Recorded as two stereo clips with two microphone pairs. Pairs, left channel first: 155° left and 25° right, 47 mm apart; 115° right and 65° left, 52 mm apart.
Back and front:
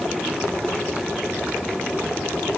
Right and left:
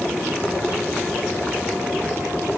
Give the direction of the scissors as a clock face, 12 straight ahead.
I don't hear scissors.